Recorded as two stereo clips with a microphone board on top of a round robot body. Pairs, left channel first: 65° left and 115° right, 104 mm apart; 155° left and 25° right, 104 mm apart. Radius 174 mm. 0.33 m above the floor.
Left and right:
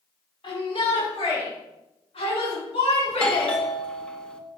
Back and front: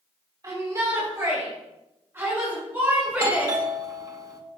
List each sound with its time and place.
0.4 s a shout: 30° left, 4.5 m; by 3.6 s 50° left, 6.5 m
3.1 s a doorbell: 5° right, 1.6 m